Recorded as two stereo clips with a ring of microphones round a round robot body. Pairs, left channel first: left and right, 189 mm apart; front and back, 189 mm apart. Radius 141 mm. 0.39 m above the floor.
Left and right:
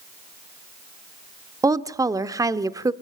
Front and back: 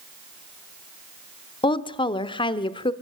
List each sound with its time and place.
1.6 s a woman speaking: 35° right, 0.9 m